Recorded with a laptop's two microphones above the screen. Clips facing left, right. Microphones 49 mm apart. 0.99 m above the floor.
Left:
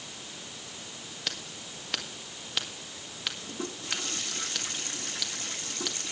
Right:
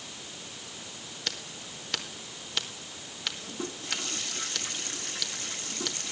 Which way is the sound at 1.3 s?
5° left (ahead or behind).